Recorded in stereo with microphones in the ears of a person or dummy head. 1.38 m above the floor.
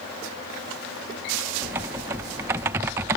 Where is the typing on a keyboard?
10° right (ahead or behind).